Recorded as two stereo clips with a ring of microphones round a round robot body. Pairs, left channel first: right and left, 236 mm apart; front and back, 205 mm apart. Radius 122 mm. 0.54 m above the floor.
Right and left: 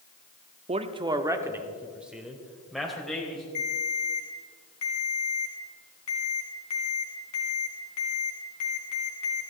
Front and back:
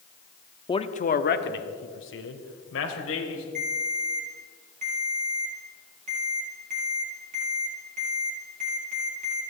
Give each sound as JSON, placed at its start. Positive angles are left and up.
{"t": 0.7, "sound": "a man speaking", "azimuth_deg": 50, "distance_m": 0.7}
{"t": 3.5, "sound": "a ringtone", "azimuth_deg": -120, "distance_m": 4.0}